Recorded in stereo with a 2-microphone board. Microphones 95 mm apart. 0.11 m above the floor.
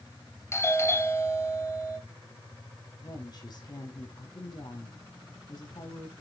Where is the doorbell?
30° left (ahead or behind), 2.5 m.